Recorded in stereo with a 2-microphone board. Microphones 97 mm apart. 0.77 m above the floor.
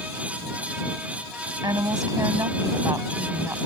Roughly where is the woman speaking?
Right.